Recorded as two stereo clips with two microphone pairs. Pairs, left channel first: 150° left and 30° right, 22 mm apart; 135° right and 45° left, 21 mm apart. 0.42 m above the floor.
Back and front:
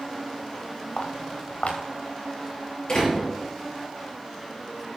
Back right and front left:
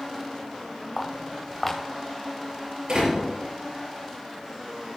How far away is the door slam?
About 6.5 m.